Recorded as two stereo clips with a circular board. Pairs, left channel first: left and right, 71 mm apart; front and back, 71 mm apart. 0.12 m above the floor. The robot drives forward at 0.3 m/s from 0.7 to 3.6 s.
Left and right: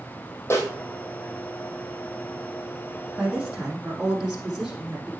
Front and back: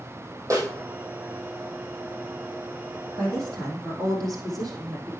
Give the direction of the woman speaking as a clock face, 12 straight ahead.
6 o'clock.